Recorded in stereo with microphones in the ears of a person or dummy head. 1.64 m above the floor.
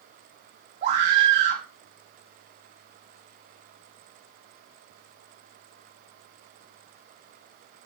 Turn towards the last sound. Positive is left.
turn(degrees=-40)  # may be behind; listen again after turning